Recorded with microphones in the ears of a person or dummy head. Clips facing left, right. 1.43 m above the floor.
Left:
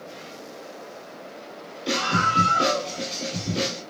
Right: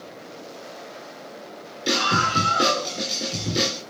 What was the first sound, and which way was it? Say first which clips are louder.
A scream: right 1 dB; 35° right (ahead or behind).